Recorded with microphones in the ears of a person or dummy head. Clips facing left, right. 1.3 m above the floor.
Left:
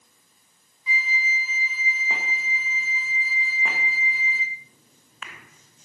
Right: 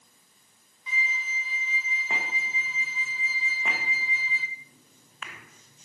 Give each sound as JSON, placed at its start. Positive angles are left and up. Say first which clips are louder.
{"t": 0.9, "sound": "a flute", "louder": "left 5 dB", "side_deg": 0, "distance_m": 1.7}